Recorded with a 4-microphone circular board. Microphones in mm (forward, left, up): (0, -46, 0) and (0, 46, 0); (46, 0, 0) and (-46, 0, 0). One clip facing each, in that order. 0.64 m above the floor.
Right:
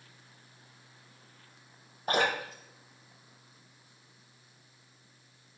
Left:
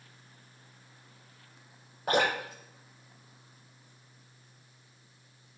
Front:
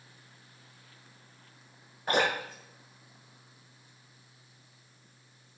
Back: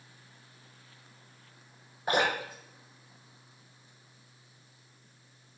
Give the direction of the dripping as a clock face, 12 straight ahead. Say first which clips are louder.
Left 1 dB, even; 9 o'clock.